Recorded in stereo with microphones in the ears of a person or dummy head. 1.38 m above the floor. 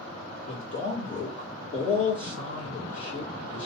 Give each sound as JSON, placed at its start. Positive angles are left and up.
{"t": 0.5, "sound": "a man speaking", "side_deg": 40, "distance_m": 1.2}